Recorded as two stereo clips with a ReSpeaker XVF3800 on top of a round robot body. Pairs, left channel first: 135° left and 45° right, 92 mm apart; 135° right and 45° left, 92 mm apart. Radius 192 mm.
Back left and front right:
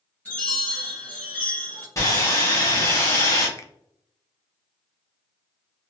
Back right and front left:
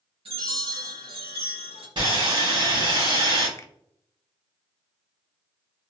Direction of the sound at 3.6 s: 175° left.